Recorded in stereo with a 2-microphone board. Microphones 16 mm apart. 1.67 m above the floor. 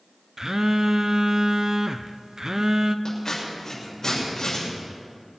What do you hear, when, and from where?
0.4 s a phone buzzing: 40° right (ahead or behind), 0.5 m
3.0 s scissors: 45° left (ahead or behind), 6.5 m